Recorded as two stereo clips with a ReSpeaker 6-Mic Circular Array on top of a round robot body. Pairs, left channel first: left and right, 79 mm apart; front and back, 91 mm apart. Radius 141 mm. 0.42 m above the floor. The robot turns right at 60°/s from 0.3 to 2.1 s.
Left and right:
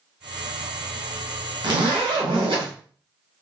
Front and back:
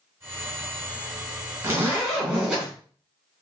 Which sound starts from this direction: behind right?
A zipper, at 1.6 s.